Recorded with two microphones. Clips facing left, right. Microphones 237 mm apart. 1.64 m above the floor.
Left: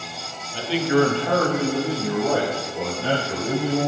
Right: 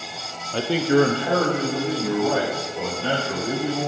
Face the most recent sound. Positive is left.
turn(degrees=20)  # may be behind; listen again after turning